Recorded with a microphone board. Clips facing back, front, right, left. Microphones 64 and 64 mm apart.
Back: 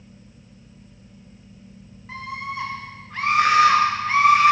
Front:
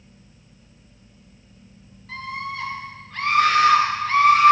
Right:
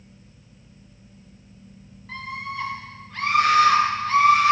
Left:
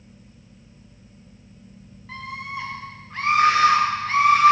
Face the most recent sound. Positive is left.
turn(degrees=110)